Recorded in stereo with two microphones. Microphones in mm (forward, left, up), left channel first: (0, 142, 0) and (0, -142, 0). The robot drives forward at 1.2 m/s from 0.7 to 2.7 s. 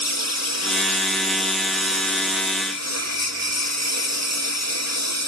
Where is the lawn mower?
75° right (ahead or behind); by 5.3 s 70° right (ahead or behind).